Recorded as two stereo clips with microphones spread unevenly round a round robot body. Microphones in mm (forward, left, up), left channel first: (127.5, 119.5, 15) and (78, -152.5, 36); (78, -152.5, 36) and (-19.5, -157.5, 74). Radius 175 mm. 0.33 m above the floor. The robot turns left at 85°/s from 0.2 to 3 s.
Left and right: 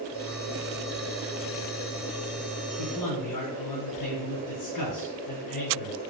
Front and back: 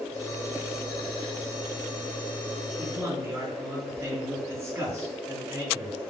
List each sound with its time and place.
2.8 s a man speaking: 100° left, 4 m; by 6.0 s 80° left, 4 m